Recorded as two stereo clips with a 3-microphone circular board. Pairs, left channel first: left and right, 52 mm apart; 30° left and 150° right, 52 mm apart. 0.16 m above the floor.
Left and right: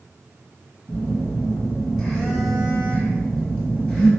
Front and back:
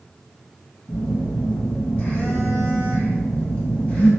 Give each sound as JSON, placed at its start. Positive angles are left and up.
{"t": 0.9, "sound": "a phone buzzing", "azimuth_deg": 15, "distance_m": 1.6}